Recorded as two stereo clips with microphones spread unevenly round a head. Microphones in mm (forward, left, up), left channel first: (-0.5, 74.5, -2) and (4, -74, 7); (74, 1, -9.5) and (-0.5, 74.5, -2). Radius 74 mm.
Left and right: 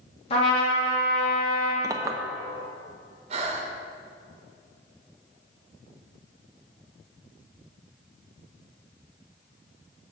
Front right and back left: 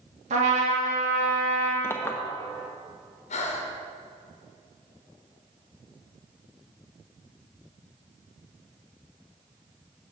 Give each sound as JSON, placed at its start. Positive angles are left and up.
{"t": 0.3, "sound": "a trumpet", "azimuth_deg": 145, "distance_m": 2.0}
{"t": 1.8, "sound": "a clink", "azimuth_deg": -90, "distance_m": 0.7}
{"t": 3.3, "sound": "breathing", "azimuth_deg": -40, "distance_m": 1.1}